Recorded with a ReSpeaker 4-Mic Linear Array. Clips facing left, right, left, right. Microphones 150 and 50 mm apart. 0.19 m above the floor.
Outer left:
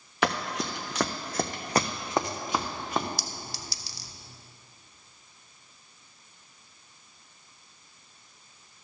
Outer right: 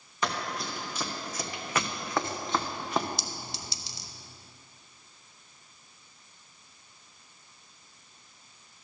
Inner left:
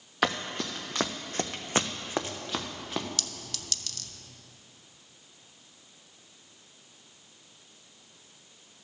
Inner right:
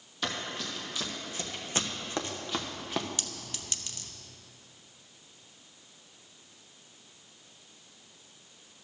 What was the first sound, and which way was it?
Running footsteps, 80° left.